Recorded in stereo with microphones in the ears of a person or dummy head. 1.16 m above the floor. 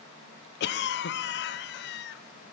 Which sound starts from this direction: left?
A cough, at 0.6 s.